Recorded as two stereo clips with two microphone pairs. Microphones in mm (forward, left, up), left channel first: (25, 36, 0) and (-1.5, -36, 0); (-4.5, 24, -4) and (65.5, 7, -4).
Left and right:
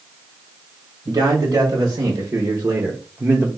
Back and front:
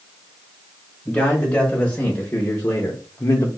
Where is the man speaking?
115° right, 1.6 m; by 3.5 s 165° right, 0.7 m.